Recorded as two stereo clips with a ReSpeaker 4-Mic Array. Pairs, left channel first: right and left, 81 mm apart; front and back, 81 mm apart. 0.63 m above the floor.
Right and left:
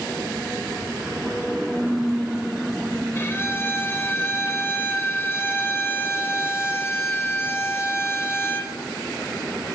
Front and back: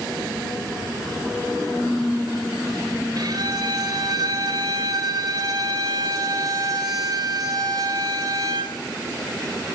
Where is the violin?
150° right, 3 m.